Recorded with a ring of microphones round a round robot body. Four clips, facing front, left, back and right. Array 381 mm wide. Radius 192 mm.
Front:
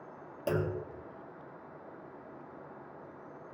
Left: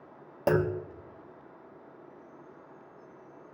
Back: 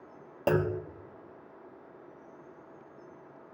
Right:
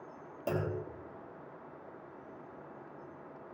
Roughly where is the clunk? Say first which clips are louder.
Left 8 dB, back 5 dB; behind left.